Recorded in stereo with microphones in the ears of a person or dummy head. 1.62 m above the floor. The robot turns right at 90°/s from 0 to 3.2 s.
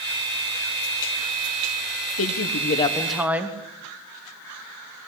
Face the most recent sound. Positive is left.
turn(degrees=-170)